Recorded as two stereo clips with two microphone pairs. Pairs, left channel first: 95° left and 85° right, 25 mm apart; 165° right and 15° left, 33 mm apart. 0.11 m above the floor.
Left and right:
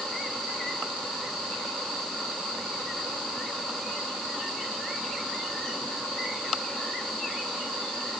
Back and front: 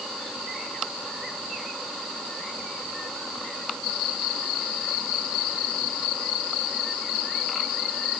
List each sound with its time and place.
Only background noise.